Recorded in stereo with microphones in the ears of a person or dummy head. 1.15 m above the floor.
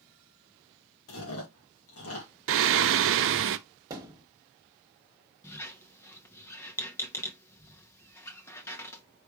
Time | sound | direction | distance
1.1 | chewing | 75° left (ahead or behind) | 2 m
2.5 | singing | 65° right (ahead or behind) | 0.5 m
3.9 | a thud | 15° right (ahead or behind) | 1.3 m
5.4 | a squeak | 20° left (ahead or behind) | 0.8 m